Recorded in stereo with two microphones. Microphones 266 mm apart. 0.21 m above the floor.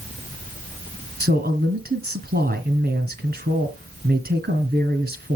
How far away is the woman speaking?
About 1.8 m.